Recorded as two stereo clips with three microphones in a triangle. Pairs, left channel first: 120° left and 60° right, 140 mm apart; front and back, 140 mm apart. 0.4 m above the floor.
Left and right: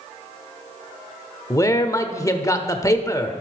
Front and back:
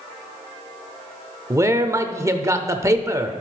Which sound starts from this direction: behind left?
A man speaking, at 1.5 s.